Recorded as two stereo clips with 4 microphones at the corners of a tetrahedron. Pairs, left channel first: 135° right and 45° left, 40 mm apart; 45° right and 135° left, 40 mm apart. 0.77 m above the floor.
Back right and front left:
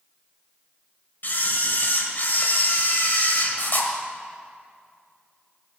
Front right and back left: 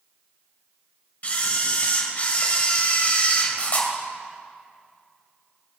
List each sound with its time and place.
1.2 s a camera shutter: 95° right, 1.9 m